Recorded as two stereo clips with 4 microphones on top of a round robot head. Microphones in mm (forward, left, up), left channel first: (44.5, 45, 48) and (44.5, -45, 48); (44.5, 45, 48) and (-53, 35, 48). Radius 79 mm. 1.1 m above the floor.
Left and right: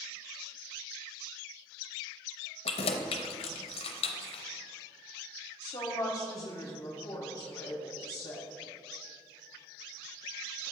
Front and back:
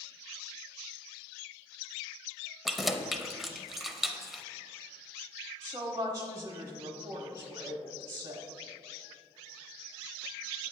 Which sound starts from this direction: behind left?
A woman speaking, at 5.6 s.